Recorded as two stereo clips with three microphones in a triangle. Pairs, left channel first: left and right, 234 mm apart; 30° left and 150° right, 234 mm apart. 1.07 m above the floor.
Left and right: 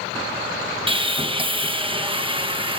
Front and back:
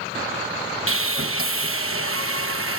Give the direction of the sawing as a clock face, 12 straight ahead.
5 o'clock.